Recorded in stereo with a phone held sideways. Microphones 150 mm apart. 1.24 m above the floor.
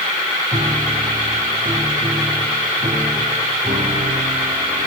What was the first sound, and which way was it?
A piano, 50° right (ahead or behind).